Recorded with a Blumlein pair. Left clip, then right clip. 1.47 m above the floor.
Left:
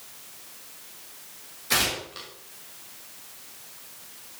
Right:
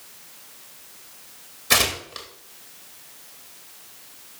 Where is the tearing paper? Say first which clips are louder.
Right 4 dB; 70° right, 2 m.